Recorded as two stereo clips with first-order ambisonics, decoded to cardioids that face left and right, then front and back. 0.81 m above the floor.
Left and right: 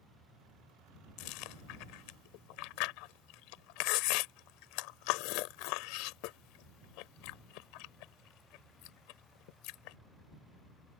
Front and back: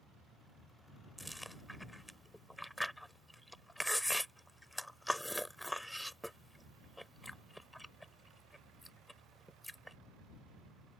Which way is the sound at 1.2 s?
90° left.